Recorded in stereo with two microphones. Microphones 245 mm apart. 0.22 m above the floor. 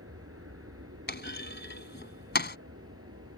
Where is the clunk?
45° left (ahead or behind).